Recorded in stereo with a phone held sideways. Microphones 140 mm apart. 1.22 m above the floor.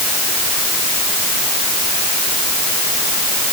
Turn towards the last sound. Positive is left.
No sound to turn to.